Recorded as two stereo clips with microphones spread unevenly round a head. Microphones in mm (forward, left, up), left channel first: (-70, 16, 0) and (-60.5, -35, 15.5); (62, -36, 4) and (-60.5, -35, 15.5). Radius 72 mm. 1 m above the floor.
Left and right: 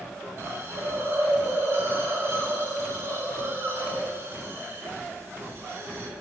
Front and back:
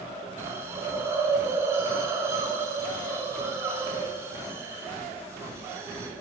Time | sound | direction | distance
0.4 | a hiss | 115° right | 3 m